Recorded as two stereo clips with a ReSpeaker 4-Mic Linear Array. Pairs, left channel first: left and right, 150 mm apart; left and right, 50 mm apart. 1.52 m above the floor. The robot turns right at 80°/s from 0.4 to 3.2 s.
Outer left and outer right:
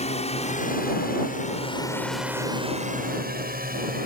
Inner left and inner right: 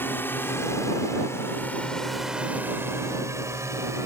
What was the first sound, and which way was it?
A drone, 45° left (ahead or behind).